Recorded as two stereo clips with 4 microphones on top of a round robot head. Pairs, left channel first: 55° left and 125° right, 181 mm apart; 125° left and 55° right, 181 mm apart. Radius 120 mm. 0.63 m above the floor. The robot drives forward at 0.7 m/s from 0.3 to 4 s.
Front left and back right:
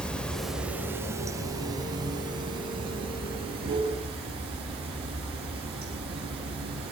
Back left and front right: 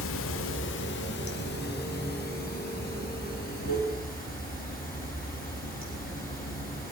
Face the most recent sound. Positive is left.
turn(degrees=170)